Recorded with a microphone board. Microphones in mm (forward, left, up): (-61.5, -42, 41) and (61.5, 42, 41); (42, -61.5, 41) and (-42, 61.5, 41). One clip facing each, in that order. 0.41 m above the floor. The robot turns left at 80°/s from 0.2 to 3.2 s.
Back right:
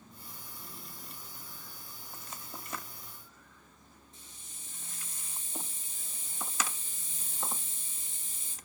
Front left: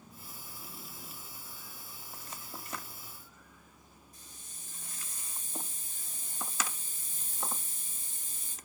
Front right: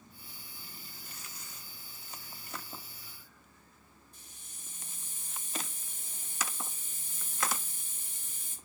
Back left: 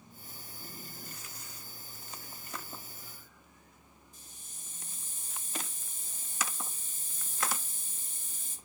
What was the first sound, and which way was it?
A hiss, 80° right.